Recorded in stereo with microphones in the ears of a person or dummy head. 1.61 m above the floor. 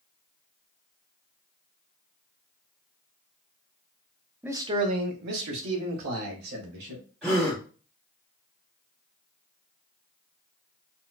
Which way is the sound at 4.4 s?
5° right (ahead or behind).